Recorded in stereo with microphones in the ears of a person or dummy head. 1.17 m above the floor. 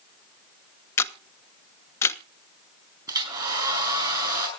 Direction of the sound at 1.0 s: 20° left (ahead or behind).